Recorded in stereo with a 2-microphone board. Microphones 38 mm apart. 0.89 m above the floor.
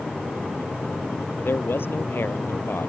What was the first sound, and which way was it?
A man speaking, 65° left (ahead or behind).